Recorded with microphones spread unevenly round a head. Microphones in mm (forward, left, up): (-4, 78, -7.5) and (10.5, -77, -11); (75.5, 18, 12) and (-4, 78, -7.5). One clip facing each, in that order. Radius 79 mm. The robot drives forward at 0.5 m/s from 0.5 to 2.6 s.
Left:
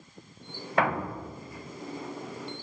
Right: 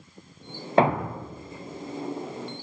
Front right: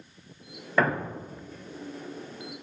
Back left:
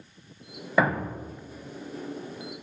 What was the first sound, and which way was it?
A thud, 115° right.